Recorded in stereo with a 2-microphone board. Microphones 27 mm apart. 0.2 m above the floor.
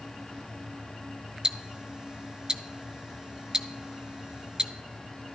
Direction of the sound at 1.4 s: 30° right (ahead or behind).